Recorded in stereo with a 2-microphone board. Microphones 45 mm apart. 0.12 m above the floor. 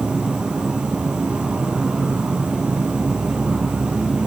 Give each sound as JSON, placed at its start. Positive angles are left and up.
{"t": 0.0, "sound": "an insect", "side_deg": -20, "distance_m": 1.5}